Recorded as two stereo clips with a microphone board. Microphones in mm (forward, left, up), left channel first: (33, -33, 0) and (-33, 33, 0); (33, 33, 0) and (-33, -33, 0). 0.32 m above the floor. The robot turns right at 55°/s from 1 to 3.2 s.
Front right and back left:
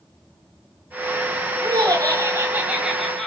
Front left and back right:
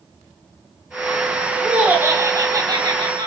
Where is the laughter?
145° left, 1.7 m; by 3.3 s 125° right, 1.7 m.